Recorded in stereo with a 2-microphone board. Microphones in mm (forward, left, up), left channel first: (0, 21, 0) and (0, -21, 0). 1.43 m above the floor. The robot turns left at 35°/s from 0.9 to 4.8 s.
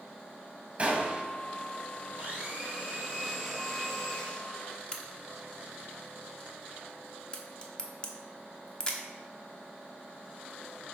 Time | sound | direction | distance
0.8 | a gunshot | 30° right (ahead or behind) | 1.5 m
2.2 | a blender | 125° right | 4.5 m
4.9 | a crack | 25° left (ahead or behind) | 1.2 m